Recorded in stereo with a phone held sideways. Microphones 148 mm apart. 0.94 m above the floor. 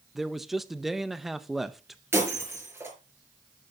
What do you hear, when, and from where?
0.1 s a man speaking: centre (ahead or behind), 0.7 m
2.1 s breaking glass: 15° right (ahead or behind), 5 m